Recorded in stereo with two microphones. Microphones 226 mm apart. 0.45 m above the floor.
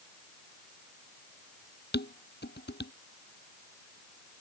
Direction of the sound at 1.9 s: 50° left (ahead or behind).